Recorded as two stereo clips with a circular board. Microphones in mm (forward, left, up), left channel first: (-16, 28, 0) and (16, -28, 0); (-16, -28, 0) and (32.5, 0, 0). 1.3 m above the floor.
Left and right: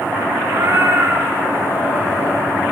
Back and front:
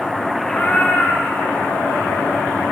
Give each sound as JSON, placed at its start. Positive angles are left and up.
{"t": 0.4, "sound": "a cat meowing", "azimuth_deg": -100, "distance_m": 1.8}